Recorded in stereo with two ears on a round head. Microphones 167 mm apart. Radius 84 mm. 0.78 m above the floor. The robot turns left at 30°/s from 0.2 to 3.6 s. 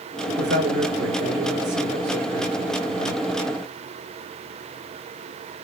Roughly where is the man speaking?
Ahead right.